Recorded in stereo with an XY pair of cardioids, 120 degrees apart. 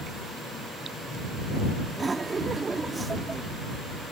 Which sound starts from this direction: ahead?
Laughter, at 1.9 s.